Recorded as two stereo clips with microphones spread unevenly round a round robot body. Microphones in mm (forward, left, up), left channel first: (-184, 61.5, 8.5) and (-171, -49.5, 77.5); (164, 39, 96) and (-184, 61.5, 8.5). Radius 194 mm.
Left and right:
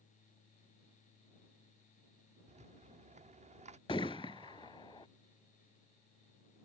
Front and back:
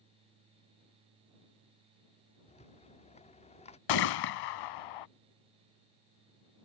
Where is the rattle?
85° right.